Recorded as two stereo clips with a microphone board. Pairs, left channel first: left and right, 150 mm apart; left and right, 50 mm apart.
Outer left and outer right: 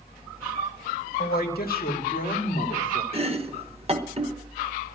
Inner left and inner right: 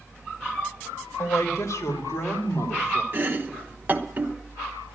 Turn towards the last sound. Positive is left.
turn(degrees=-40)  # may be behind; listen again after turning